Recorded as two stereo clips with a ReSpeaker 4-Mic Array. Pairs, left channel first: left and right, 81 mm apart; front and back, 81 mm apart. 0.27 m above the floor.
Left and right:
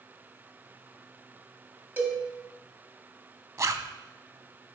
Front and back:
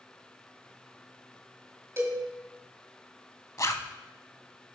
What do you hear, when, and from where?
2.0 s a cowbell: 145° right, 1.8 m
3.6 s a zipper: 45° right, 0.5 m